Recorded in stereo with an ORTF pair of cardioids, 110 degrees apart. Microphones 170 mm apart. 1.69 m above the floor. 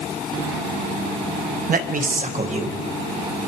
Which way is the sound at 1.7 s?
55° right.